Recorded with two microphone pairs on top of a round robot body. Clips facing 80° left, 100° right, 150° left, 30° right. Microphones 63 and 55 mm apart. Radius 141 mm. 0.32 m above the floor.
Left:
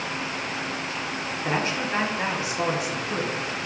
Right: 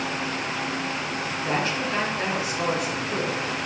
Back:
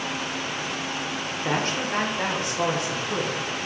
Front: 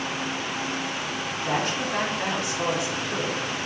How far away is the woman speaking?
About 1.5 m.